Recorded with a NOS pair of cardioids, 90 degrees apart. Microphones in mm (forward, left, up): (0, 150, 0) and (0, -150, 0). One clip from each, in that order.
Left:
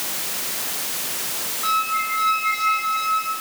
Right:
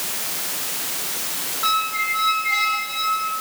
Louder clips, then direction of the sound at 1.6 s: Right 1 dB; 60° right.